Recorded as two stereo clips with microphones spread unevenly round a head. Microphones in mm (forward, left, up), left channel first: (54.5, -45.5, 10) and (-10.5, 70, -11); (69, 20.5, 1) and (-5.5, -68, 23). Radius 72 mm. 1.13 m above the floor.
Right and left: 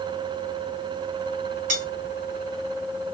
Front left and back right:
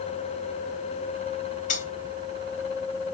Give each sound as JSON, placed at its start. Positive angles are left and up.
{"t": 1.7, "sound": "cutlery clinking", "azimuth_deg": 90, "distance_m": 1.4}